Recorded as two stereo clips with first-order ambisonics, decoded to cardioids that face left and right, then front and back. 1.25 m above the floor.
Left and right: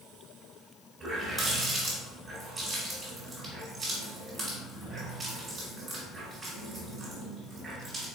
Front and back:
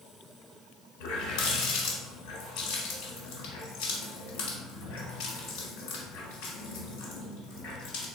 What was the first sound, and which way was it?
A running tap, 10° right.